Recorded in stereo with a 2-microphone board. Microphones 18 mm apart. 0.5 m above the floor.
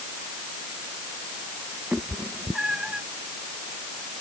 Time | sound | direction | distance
1.9 | a cat meowing | 45° right (ahead or behind) | ?